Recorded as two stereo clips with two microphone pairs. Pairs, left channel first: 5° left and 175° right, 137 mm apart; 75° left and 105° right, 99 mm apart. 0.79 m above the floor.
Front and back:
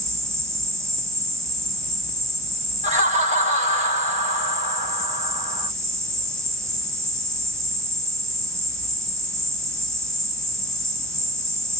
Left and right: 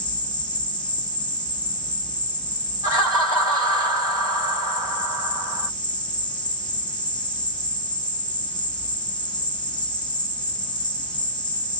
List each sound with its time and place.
0.0 s an insect: 115° left, 0.9 m
2.8 s laughter: 150° right, 3.5 m